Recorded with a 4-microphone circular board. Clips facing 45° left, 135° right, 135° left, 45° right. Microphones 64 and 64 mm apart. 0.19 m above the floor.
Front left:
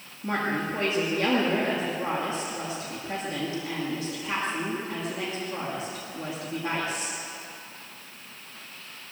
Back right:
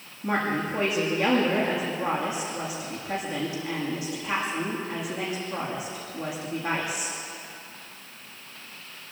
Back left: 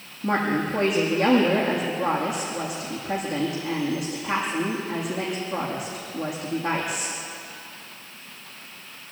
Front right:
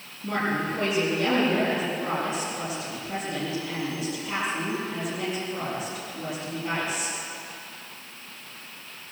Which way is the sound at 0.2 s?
140° left.